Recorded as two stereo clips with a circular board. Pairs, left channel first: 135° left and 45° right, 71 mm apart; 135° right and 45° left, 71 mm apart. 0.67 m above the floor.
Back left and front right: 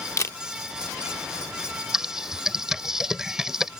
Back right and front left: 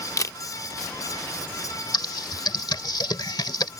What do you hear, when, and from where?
0.2 s a camera shutter: 175° right
1.9 s typing on a keyboard: 125° right